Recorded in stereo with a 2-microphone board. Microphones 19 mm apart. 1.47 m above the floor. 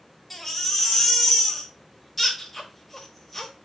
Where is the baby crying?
5° left (ahead or behind), 3 m.